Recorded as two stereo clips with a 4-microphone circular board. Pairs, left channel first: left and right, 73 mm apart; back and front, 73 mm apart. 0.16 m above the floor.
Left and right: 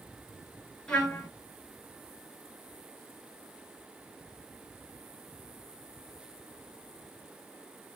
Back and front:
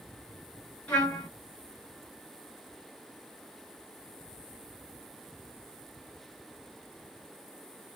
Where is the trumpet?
140° left, 1.7 m.